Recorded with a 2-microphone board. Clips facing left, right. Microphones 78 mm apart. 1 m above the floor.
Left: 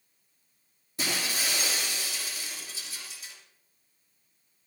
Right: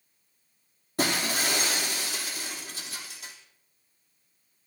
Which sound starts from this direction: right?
Breaking glass, at 1.0 s.